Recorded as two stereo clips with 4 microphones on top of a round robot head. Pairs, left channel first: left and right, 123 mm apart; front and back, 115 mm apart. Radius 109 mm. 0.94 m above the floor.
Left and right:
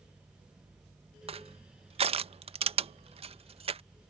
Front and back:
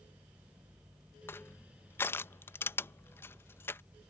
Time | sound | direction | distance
1.3 | crushing | 65° right | ?